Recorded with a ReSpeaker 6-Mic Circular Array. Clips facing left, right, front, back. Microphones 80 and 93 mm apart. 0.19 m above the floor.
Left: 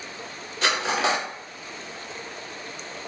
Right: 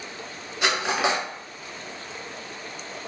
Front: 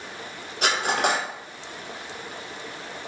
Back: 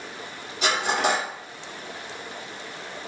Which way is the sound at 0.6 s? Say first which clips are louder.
Even, even; 15° right.